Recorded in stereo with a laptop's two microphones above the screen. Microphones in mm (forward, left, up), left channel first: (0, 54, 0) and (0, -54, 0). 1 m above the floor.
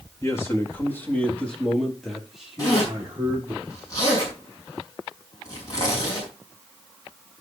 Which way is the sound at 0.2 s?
30° left (ahead or behind).